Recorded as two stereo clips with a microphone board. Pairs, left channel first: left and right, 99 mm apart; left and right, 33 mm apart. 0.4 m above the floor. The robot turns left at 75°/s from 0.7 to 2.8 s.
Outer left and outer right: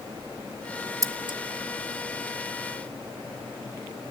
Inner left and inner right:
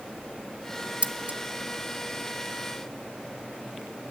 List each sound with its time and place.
1.0 s scissors: 35° right (ahead or behind), 0.6 m; by 1.4 s 55° right (ahead or behind), 0.6 m